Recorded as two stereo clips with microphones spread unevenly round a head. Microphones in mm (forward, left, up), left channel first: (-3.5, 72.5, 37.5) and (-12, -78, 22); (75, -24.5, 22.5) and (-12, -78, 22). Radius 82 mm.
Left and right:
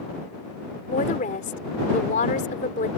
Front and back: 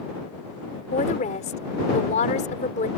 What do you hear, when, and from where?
0.9 s a woman speaking: 40° left